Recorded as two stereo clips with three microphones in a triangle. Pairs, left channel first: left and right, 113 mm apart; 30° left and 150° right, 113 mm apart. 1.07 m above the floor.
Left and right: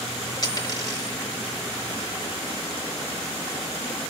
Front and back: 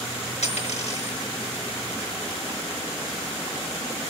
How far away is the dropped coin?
About 5 m.